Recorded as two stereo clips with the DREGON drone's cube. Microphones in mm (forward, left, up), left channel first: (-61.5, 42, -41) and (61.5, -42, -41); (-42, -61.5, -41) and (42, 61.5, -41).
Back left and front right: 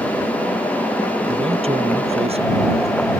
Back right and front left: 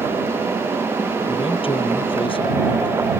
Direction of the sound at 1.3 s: 75° right.